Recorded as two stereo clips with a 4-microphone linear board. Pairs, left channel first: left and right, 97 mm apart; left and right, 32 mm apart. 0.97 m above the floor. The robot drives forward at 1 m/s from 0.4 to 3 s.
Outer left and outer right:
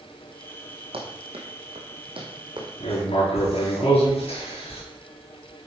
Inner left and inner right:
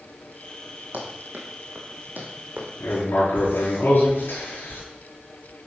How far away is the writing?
About 4.5 m.